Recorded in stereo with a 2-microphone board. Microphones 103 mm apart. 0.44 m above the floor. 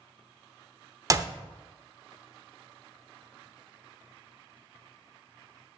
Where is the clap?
35° right (ahead or behind), 0.7 m.